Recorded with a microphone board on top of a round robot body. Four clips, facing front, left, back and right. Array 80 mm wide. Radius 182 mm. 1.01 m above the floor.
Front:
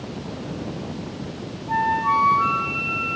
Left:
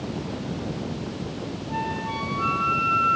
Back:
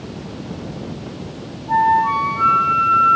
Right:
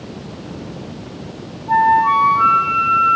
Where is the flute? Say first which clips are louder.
Right 18 dB, back 6 dB; 95° right, 2 m.